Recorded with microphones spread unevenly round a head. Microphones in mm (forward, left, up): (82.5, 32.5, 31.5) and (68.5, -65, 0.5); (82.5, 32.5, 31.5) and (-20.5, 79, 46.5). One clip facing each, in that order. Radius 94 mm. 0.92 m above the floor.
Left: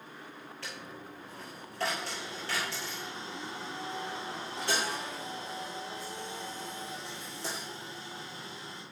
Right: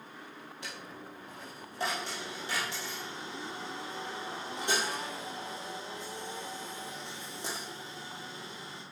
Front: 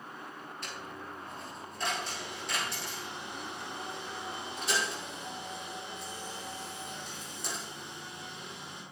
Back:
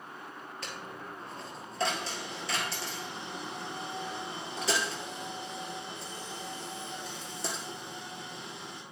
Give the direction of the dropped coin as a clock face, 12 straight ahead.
6 o'clock.